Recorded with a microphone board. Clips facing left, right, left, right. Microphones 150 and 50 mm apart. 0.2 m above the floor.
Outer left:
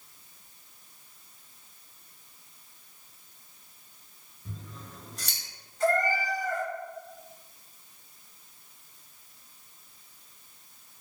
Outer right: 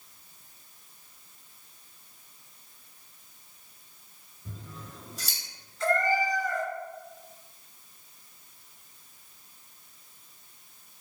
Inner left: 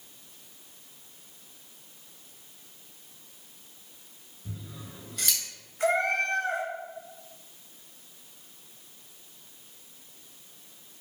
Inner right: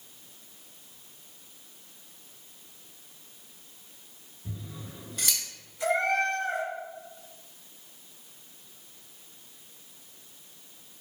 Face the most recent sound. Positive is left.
turn(degrees=50)  # may be behind; listen again after turning